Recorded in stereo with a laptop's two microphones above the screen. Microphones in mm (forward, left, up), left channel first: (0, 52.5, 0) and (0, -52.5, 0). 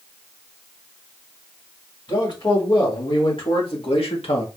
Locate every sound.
2.1 s a man speaking: 50° left (ahead or behind), 3.5 m; by 4.5 s 65° left (ahead or behind), 1.4 m